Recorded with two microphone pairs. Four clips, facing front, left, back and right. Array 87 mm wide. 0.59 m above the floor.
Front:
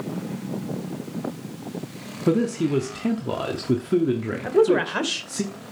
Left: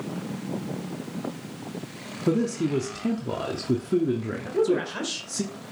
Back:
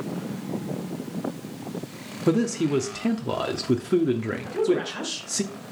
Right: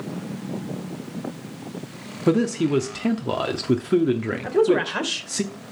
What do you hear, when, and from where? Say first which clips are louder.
2.3 s a man speaking: right 4 dB, front 1 dB; 100° right, 0.7 m
4.4 s a woman speaking: right 5 dB, front 6 dB; 45° right, 1.8 m